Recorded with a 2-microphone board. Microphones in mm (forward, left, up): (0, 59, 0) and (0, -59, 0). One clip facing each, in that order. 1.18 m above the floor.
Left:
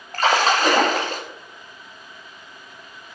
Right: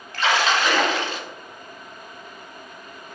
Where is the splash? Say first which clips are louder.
Left 3 dB; 40° left (ahead or behind), 1.4 m.